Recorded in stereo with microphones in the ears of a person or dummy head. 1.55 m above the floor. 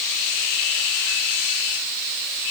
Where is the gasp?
No gasp in this recording.